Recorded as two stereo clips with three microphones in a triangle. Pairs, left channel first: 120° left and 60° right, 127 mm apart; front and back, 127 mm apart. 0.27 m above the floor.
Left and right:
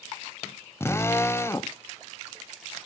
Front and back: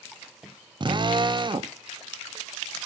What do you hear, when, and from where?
0.8 s a drill: 175° left, 0.7 m